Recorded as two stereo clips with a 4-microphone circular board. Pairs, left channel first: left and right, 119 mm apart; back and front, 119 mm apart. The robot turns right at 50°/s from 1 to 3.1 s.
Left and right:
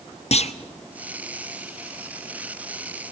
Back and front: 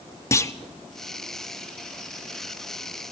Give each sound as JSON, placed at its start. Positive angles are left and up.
{"t": 0.3, "sound": "a clunk", "azimuth_deg": 115, "distance_m": 0.8}